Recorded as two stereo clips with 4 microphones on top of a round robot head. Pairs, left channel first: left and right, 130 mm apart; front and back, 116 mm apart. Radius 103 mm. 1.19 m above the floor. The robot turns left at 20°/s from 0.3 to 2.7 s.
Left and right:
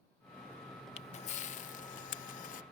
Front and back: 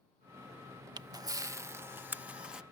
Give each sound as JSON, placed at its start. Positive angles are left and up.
{"t": 1.0, "sound": "a camera shutter", "azimuth_deg": 130}